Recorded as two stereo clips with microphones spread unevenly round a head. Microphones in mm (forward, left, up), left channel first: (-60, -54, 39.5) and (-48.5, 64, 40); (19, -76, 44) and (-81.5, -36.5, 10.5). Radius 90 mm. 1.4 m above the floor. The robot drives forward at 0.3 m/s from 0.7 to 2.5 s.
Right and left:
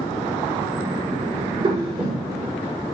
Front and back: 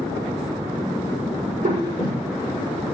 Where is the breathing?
135° left, 6.5 m.